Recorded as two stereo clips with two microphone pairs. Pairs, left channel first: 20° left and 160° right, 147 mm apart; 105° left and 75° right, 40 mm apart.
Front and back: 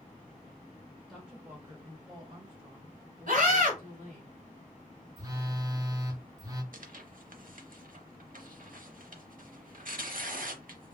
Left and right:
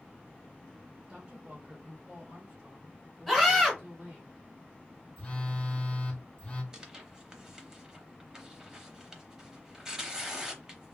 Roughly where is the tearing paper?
Behind right.